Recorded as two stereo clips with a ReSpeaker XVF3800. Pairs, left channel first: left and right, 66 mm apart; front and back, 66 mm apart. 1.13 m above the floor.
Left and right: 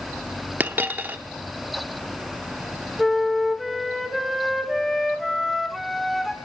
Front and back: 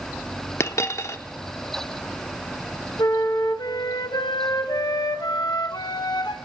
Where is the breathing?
No breathing in this recording.